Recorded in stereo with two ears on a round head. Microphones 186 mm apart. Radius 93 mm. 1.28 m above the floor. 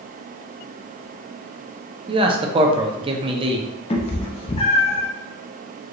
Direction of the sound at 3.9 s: 25° left (ahead or behind).